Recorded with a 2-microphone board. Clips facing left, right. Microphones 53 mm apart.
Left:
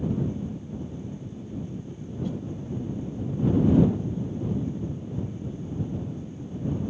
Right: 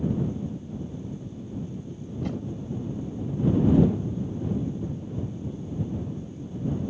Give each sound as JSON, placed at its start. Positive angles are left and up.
{"t": 2.2, "sound": "a whoosh", "side_deg": -75}